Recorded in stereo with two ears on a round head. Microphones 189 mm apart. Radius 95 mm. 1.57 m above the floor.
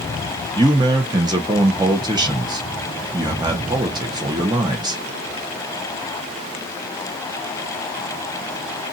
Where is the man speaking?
20° right (ahead or behind), 1.1 m.